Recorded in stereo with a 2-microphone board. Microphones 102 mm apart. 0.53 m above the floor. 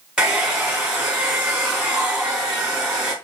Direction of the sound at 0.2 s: 10° right (ahead or behind).